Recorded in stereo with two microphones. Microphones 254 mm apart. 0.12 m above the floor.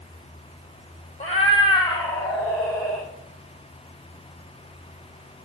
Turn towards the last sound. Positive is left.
turn(degrees=0)  # may be behind; listen again after turning